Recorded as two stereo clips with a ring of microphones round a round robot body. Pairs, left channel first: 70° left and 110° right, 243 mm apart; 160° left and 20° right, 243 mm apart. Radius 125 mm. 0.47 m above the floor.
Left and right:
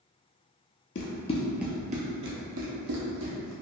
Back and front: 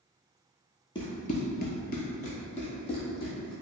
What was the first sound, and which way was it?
Running footsteps, 95° left.